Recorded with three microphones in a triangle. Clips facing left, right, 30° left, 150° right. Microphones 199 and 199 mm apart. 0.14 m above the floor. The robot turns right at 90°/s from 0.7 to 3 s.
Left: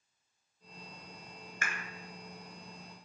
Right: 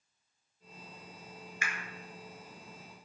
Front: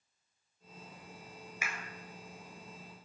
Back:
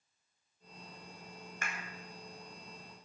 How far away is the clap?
About 1.8 m.